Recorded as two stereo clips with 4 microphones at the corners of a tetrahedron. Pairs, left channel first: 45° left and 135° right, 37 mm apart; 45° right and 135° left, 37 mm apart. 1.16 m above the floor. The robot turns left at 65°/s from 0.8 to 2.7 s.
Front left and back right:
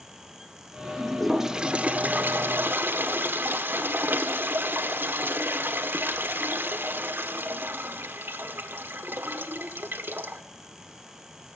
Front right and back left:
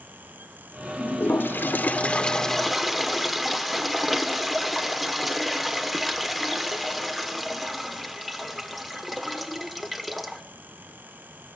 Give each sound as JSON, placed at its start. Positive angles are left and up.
{"t": 1.0, "sound": "a toilet flushing", "azimuth_deg": -25, "distance_m": 1.5}